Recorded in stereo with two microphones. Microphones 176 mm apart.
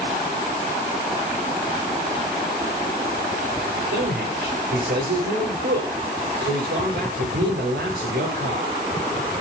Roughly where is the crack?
I don't hear a crack.